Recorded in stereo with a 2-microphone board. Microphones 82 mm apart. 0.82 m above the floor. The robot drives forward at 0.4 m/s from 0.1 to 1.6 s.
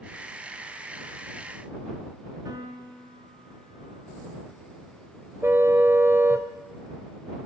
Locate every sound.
2.5 s a piano: 50° right (ahead or behind), 6 m
5.4 s a car horn: 30° right (ahead or behind), 2 m